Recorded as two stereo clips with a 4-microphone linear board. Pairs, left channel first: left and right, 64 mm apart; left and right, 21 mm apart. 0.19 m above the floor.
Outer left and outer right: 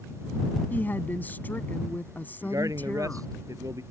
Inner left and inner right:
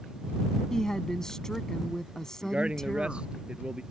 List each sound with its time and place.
0.7 s a woman speaking: 30° left (ahead or behind)
2.4 s a man speaking: 65° right (ahead or behind)